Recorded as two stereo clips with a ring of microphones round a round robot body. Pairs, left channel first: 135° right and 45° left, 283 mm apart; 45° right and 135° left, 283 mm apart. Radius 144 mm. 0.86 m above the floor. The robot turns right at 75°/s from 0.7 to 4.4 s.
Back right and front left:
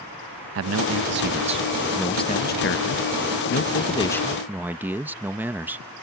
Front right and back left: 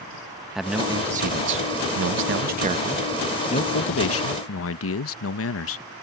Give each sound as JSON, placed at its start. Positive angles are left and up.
{"t": 0.6, "sound": "a man speaking", "azimuth_deg": 45}